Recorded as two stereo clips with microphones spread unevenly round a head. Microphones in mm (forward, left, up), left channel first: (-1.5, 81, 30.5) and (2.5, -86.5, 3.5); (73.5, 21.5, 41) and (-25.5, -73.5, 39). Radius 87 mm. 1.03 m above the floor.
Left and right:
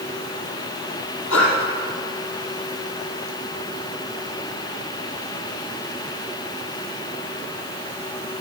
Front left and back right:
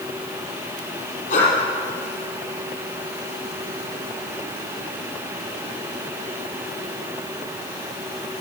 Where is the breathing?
85° left, 5.5 m.